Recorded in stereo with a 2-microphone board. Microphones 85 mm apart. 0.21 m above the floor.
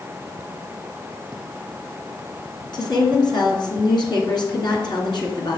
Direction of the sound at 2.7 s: 60° left (ahead or behind).